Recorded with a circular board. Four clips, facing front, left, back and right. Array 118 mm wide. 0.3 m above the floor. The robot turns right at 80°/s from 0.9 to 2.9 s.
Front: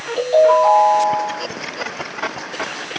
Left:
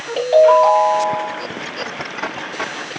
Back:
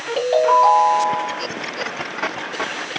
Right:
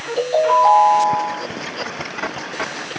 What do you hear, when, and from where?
0.2 s a ringtone: 125° left, 2.5 m; by 1.4 s 165° left, 2.5 m